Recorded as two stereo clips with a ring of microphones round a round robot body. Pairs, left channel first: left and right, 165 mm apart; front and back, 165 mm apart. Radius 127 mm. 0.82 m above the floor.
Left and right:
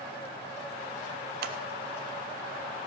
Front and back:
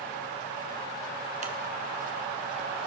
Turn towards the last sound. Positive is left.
turn(degrees=-125)